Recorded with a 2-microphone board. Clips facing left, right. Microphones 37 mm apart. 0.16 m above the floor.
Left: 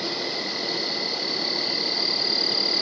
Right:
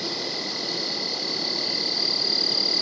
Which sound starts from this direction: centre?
An insect, at 0.0 s.